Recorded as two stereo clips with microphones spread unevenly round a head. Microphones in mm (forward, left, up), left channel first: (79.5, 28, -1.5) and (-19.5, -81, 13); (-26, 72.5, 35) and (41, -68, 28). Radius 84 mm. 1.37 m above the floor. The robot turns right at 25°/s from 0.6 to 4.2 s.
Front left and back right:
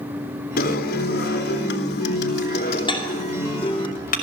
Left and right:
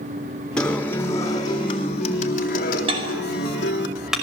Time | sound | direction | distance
0.6 | a guitar | 30° left | 3.5 m
2.9 | dishes clattering | 10° right | 5 m